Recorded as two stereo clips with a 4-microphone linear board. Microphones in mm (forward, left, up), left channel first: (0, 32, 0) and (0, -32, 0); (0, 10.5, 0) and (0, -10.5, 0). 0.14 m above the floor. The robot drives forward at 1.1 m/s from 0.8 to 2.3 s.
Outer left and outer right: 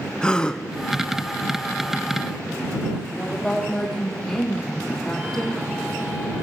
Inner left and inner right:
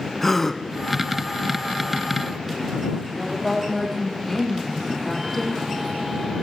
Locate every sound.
0.2 s a gasp: 15° left (ahead or behind), 1.3 m
3.1 s a woman speaking: 5° left (ahead or behind), 7 m